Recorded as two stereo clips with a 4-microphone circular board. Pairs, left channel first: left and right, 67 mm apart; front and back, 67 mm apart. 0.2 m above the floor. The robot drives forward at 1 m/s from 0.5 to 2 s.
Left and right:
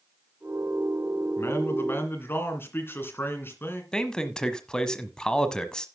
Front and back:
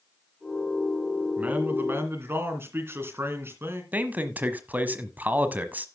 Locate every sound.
1.4 s a man speaking: 120° left, 2 m; by 3.8 s 135° left, 2.5 m
3.9 s a man speaking: 155° left, 1.2 m